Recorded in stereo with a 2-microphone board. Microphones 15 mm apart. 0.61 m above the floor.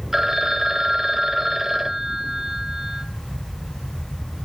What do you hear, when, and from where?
0.1 s a phone ringing: 25° right (ahead or behind), 1.3 m